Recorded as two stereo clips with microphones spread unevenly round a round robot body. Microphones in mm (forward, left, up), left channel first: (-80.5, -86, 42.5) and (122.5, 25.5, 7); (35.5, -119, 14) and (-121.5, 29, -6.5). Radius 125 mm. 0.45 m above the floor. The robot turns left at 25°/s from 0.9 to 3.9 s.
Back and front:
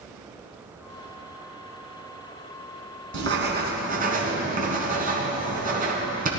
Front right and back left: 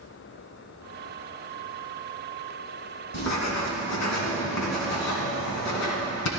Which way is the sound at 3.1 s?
10° right.